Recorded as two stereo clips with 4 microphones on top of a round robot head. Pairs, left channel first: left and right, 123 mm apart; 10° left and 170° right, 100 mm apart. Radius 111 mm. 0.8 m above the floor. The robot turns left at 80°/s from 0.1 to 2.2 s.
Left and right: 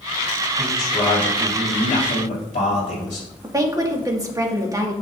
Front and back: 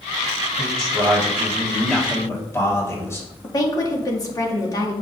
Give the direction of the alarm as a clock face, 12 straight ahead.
I don't hear an alarm.